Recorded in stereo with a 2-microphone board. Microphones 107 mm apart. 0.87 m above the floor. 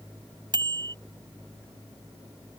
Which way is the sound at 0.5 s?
45° right (ahead or behind).